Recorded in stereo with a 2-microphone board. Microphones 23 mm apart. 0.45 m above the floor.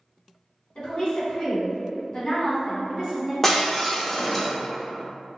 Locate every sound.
0.8 s a woman speaking: 45° left (ahead or behind), 1.5 m; by 3.3 s 20° left (ahead or behind), 1.2 m
3.4 s breaking glass: 15° left (ahead or behind), 0.6 m